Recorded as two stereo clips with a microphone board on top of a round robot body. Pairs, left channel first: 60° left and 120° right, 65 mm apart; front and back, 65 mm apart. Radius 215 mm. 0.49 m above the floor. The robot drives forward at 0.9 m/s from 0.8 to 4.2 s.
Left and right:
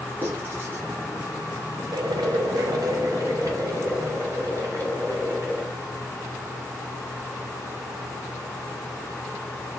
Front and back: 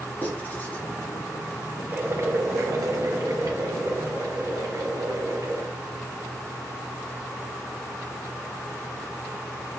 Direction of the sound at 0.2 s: 65° right.